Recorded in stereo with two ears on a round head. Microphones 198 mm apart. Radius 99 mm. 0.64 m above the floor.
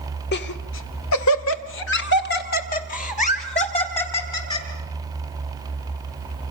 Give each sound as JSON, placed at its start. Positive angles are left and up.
{"t": 0.3, "sound": "laughter", "side_deg": 50, "distance_m": 2.0}